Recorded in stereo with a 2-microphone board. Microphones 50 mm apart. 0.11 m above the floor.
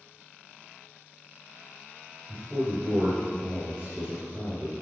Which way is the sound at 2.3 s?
25° right (ahead or behind).